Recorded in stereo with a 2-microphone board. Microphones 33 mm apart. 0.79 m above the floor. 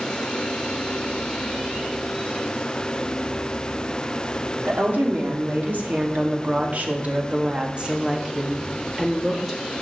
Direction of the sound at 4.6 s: 70° right (ahead or behind).